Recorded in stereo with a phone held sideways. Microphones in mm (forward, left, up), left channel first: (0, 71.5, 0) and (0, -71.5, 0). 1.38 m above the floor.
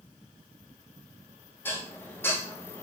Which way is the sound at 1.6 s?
15° left (ahead or behind).